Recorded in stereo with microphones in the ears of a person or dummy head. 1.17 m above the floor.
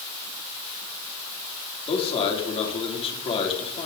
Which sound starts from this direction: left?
A man speaking, at 1.9 s.